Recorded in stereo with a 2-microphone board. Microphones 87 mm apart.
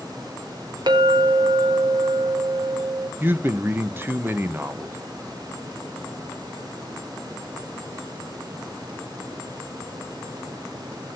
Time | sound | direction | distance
0.9 | a clink | 65° right (ahead or behind) | 2 m
3.2 | a man speaking | 25° right (ahead or behind) | 0.9 m